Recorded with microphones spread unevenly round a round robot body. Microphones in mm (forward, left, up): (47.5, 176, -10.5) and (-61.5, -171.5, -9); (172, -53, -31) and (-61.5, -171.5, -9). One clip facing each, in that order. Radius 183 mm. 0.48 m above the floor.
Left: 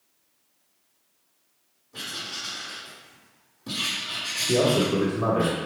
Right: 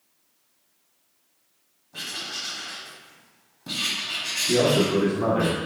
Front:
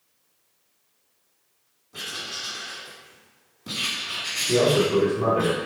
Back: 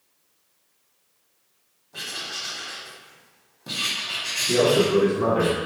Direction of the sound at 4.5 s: 145° right.